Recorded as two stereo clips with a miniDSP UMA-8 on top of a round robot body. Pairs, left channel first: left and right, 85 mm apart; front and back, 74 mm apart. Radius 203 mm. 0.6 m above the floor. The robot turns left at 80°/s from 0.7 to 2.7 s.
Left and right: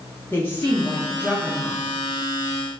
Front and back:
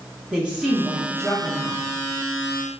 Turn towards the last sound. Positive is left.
turn(degrees=-45)